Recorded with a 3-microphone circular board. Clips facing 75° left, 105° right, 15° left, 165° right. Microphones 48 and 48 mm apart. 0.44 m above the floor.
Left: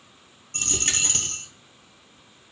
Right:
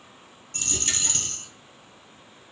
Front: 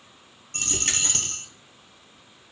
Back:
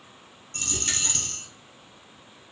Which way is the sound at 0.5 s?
40° left.